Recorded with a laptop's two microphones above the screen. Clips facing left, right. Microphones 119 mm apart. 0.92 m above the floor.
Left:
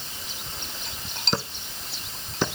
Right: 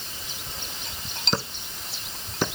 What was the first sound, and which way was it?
Only background noise.